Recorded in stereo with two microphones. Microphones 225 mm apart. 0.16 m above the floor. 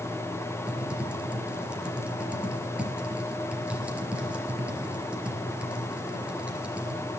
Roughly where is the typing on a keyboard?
Centre.